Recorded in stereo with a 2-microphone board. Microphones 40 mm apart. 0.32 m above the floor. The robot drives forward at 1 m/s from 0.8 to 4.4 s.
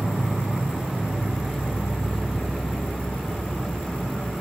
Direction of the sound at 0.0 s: 40° right (ahead or behind).